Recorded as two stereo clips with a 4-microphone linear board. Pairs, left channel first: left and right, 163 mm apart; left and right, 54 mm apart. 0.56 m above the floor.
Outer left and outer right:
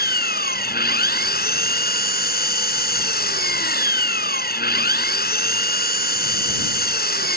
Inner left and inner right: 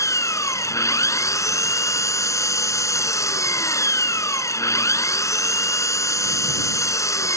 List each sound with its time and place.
0.0 s an engine running: 85° left